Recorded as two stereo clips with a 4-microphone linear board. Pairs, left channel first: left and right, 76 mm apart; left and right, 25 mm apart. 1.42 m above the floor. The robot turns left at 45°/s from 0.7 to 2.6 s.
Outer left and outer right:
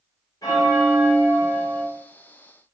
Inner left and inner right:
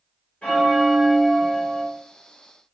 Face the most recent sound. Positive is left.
turn(degrees=30)